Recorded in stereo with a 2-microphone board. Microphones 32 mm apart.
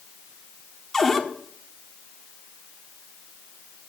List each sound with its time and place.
0.9 s a cupboard door: 10° left (ahead or behind), 1.4 m